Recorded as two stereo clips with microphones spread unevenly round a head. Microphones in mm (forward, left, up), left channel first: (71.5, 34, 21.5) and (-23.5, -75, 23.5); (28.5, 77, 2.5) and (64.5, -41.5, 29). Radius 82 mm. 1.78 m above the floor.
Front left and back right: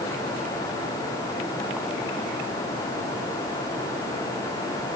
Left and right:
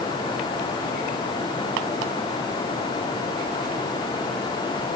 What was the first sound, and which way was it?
Only background noise.